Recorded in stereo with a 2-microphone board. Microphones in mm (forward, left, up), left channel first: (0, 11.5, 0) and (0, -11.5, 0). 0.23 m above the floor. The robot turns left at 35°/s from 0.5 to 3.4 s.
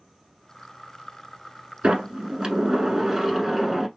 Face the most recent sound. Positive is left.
turn(degrees=-175)